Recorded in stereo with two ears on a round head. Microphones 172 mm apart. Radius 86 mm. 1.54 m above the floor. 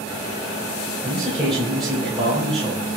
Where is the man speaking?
Centre (ahead or behind), 4.5 m.